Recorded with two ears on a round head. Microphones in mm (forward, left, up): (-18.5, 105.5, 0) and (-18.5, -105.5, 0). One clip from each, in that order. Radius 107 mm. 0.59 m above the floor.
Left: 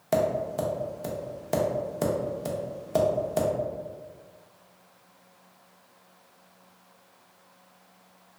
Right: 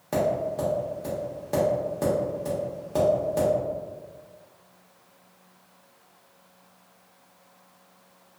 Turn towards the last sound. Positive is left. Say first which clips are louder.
# even
turn(degrees=35)  # may be behind; listen again after turning